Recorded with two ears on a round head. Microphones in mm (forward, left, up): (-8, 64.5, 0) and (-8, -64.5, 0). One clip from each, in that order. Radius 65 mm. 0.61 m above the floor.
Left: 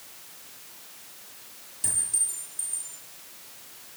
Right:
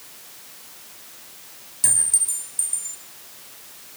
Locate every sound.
1.8 s a clink: 45° right (ahead or behind), 7.5 m